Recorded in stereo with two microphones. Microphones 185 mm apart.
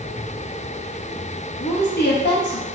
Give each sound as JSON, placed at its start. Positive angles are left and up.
{"t": 1.6, "sound": "a woman speaking", "side_deg": 70, "distance_m": 0.6}